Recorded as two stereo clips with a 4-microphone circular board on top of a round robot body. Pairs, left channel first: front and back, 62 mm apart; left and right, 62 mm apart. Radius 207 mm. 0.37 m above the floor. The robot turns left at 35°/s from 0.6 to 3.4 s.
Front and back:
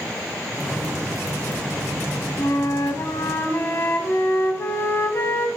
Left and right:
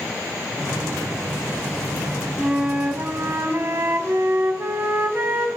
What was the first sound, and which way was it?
A flute, straight ahead.